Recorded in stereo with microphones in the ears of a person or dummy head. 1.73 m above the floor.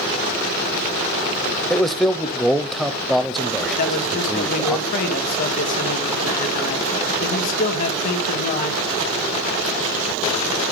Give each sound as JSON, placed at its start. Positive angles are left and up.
{"t": 1.7, "sound": "a man speaking", "side_deg": 5, "distance_m": 0.8}
{"t": 3.8, "sound": "a man speaking", "side_deg": 45, "distance_m": 1.9}